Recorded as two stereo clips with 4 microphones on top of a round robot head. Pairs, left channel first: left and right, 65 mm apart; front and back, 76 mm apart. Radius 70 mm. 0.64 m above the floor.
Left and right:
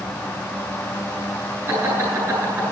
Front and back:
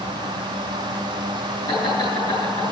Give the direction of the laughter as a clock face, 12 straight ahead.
1 o'clock.